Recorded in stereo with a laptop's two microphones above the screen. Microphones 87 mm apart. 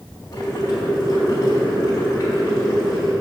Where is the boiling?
35° left (ahead or behind), 4 m.